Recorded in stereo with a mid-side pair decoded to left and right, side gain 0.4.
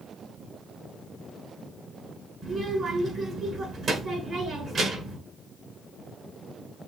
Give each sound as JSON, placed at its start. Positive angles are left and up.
{"t": 2.4, "sound": "a child speaking", "azimuth_deg": -55, "distance_m": 6.5}